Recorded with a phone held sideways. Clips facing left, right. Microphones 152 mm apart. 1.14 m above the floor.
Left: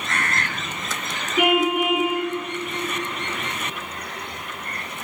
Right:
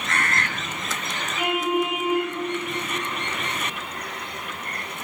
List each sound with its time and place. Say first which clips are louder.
1.4 s a car horn: left 4 dB; 75° left (ahead or behind), 5.5 m